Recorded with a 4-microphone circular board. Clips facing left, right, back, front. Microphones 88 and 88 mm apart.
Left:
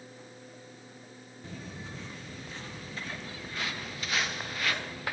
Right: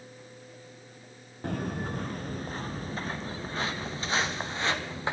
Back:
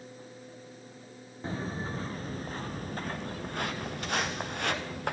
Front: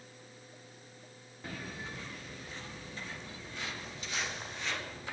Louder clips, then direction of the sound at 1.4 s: Right 11 dB, back 8 dB; 120° right.